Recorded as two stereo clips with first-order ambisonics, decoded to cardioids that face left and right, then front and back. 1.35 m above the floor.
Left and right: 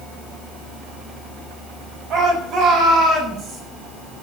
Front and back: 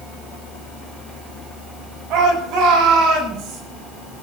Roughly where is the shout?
Behind right.